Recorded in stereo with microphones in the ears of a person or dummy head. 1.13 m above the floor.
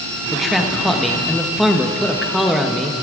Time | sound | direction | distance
0.3 | a man speaking | centre (ahead or behind) | 1.0 m